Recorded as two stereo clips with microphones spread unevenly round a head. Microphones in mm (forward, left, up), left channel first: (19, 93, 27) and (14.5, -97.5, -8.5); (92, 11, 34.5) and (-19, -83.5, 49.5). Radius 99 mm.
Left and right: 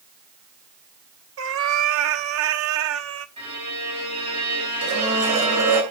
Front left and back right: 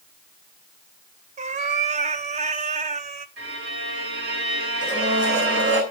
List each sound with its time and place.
1.4 s a cat meowing: 110° right, 0.8 m
3.4 s a violin: 155° right, 6 m
4.8 s a blender: 105° right, 8 m